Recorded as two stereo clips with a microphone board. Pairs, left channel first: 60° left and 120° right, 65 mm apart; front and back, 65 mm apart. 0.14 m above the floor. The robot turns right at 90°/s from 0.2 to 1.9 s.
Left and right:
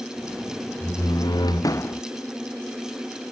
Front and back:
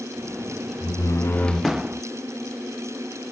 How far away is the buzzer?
I don't hear a buzzer.